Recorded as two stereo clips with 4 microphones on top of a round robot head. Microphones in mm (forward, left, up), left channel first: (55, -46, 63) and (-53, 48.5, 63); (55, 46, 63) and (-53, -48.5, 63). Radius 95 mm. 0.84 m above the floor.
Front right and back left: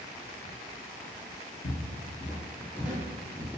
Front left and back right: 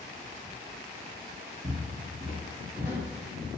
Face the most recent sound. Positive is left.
turn(degrees=145)